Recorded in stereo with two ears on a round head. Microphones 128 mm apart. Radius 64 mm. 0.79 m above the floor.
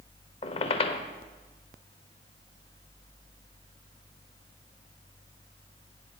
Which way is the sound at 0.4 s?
45° left (ahead or behind).